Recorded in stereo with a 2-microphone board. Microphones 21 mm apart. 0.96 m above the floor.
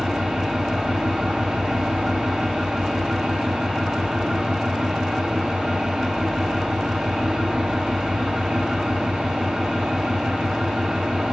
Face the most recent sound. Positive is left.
turn(degrees=-75)  # may be behind; listen again after turning